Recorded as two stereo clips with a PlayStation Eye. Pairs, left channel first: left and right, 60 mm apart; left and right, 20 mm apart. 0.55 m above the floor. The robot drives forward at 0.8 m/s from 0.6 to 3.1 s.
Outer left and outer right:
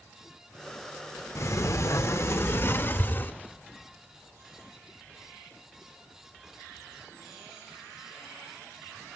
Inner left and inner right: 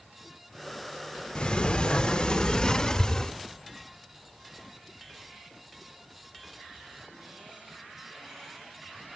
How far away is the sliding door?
About 1.2 m.